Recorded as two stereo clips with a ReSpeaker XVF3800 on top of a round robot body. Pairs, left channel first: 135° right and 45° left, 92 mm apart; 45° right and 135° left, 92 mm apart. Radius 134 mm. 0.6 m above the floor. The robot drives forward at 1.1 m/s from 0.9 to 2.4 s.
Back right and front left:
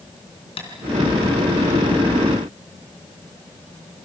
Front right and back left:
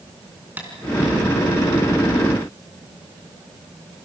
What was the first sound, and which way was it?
Tapping, 155° right.